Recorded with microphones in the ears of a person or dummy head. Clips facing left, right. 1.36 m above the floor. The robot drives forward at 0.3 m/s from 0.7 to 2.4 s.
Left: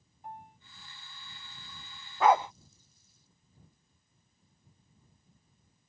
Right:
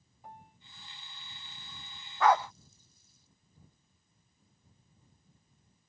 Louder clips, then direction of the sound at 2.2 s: Left 2 dB; 10° left (ahead or behind).